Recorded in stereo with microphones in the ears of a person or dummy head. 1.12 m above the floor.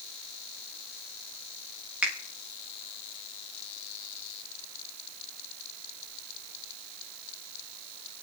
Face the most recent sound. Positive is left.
turn(degrees=-5)  # may be behind; listen again after turning